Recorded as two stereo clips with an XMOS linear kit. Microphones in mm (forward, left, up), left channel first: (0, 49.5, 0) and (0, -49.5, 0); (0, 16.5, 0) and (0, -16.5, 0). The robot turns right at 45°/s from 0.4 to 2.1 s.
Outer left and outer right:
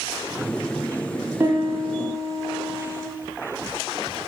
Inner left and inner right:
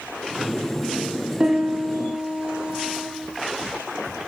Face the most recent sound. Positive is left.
turn(degrees=-110)